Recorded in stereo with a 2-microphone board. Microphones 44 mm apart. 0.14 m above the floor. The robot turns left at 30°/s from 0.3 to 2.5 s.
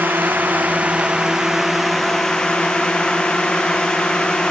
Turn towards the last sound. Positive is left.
turn(degrees=165)